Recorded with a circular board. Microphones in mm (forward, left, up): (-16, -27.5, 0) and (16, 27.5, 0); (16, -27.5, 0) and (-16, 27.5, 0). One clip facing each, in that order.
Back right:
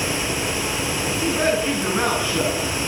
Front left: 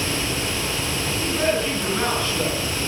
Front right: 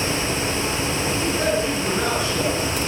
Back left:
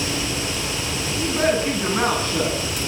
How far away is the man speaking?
About 9.5 m.